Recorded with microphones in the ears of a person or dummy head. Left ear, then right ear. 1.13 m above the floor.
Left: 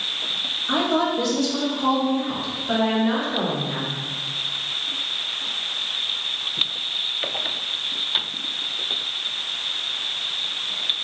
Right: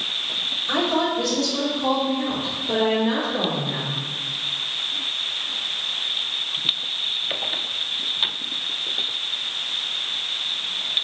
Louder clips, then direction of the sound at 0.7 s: Left 1 dB; centre (ahead or behind).